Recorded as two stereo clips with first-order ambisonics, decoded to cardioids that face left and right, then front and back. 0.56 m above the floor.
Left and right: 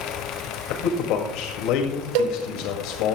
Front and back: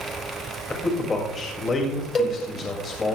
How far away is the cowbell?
About 1.0 m.